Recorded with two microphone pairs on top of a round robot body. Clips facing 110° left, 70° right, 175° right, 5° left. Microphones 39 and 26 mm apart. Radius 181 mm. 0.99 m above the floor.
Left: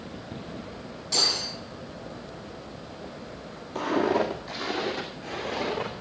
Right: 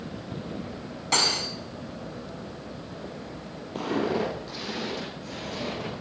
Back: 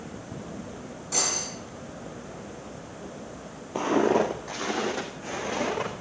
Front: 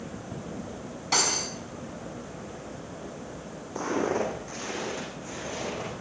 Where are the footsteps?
165° right, 1.7 m; by 5.9 s 170° left, 4 m.